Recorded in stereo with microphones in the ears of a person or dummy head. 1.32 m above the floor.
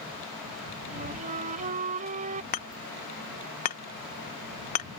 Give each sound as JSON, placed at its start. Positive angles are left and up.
{"t": 0.9, "sound": "a flute", "side_deg": -45}
{"t": 2.5, "sound": "hammering", "side_deg": 40}